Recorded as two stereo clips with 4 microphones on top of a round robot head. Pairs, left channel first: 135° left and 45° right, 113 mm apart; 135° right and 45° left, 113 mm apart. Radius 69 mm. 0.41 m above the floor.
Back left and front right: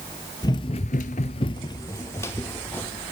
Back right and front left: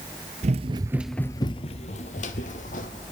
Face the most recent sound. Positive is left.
turn(degrees=-150)